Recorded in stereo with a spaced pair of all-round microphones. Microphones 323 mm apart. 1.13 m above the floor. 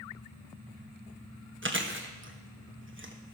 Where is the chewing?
35° right (ahead or behind), 1.2 m.